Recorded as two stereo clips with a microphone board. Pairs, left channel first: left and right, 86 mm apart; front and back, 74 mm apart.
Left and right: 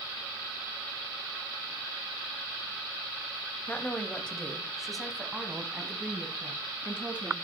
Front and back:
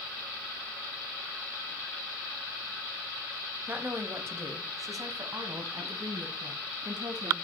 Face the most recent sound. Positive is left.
turn(degrees=-165)